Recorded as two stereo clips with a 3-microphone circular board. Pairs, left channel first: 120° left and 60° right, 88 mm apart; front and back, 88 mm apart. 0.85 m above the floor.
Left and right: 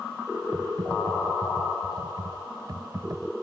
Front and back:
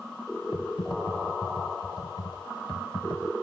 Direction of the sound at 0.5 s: 20° right.